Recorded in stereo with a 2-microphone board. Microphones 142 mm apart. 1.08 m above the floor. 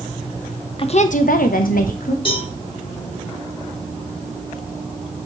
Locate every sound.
0.8 s a woman speaking: 40° left (ahead or behind), 0.7 m; by 2.1 s 75° left (ahead or behind), 1.4 m
2.2 s a cowbell: 35° left (ahead or behind), 2.0 m